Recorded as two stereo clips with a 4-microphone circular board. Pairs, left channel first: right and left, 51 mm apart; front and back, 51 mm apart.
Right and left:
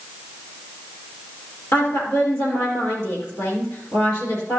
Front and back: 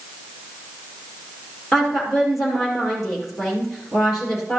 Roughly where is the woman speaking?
Right.